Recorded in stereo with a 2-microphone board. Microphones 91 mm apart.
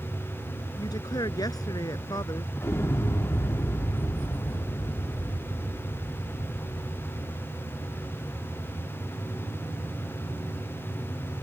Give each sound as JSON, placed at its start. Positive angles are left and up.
{"t": 0.8, "sound": "a woman speaking", "side_deg": 45}
{"t": 2.6, "sound": "an explosion", "side_deg": 30}